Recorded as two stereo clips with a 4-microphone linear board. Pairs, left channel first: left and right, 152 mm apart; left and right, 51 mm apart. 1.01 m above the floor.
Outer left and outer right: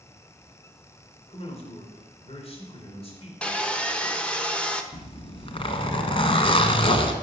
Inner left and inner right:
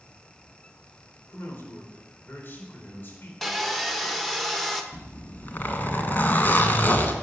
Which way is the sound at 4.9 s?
35° left (ahead or behind).